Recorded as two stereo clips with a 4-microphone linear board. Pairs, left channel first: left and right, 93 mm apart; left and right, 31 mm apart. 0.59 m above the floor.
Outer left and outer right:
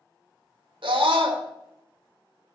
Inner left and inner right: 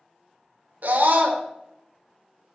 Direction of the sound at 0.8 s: 65° right (ahead or behind).